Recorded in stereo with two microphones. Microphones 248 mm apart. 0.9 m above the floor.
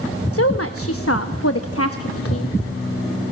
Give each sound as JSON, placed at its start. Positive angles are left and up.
{"t": 0.3, "sound": "a woman speaking", "side_deg": 65, "distance_m": 1.0}